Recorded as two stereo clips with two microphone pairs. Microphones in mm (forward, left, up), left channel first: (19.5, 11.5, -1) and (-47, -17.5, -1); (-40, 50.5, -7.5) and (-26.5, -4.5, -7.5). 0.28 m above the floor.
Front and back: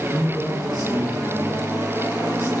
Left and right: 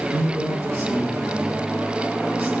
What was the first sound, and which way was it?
A man speaking, 115° right.